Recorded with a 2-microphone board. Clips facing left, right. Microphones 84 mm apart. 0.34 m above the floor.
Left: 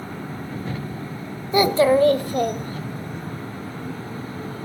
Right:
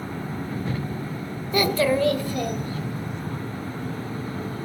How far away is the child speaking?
About 0.6 m.